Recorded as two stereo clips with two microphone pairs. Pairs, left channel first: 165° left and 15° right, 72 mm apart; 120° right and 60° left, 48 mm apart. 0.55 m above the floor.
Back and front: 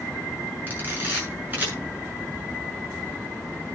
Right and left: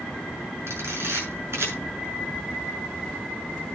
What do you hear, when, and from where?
0.7 s a camera shutter: 45° left, 6.5 m